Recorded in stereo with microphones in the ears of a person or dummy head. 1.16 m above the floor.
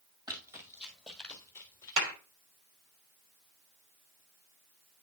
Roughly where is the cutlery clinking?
I don't hear cutlery clinking.